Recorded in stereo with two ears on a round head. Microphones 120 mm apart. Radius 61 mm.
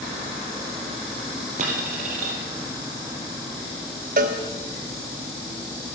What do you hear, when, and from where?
1.6 s a dropped coin: 55° right (ahead or behind), 2.5 m
4.2 s a cowbell: 65° right (ahead or behind), 0.9 m